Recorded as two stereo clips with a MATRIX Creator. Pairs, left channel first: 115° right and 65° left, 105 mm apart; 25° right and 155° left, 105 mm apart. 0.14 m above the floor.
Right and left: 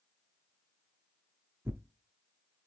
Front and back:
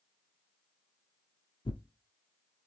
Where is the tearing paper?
Straight ahead, 0.6 m.